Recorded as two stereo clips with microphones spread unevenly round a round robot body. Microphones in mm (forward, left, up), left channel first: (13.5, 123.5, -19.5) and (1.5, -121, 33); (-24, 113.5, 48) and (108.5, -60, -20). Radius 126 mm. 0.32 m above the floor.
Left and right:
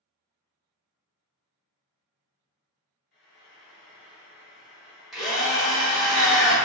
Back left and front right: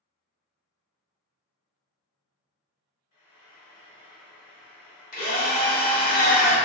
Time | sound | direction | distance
3.1 | frying | 120° left | 1.2 m
5.1 | a drill | 150° left | 1.0 m